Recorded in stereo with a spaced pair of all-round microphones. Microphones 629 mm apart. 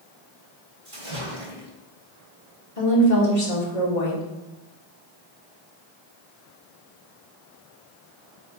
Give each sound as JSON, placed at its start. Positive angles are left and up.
{"t": 0.8, "sound": "a splash", "side_deg": -55, "distance_m": 3.5}
{"t": 2.8, "sound": "a woman speaking", "side_deg": 85, "distance_m": 2.5}